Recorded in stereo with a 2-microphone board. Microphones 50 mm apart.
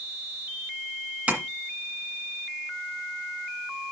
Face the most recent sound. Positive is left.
turn(degrees=-30)  # may be behind; listen again after turning